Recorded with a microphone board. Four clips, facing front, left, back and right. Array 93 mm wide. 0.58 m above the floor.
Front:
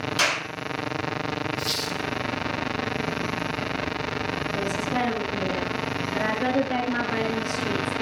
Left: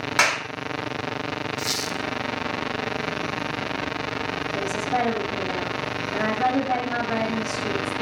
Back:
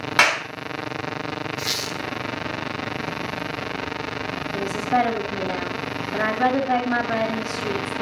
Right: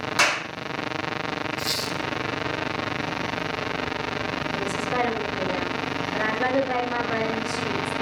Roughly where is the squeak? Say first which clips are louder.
Even, even; behind.